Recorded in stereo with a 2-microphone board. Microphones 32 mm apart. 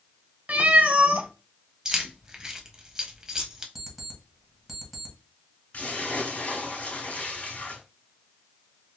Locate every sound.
0.5 s a cat meowing: 55° right (ahead or behind), 0.5 m
1.9 s keys jangling: 20° right (ahead or behind), 0.6 m
3.8 s an alarm clock: 5° right (ahead or behind), 1.2 m
5.7 s a splash: 50° left (ahead or behind), 2.5 m